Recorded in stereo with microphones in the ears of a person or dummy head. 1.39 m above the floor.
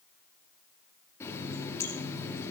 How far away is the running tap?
About 1.7 m.